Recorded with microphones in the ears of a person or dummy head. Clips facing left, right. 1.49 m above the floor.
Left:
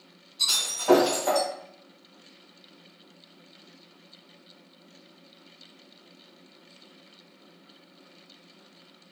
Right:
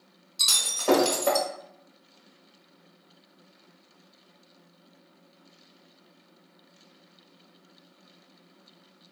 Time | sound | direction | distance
0.4 | breaking glass | 50° right (ahead or behind) | 1.1 m